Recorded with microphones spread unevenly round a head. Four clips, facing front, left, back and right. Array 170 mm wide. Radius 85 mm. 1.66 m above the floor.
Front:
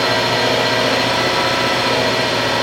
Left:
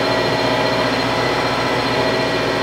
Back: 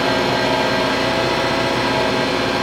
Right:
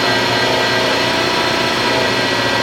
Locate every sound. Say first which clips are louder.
0.0 s an engine running: right 1 dB, front 1 dB; 80° right, 1.3 m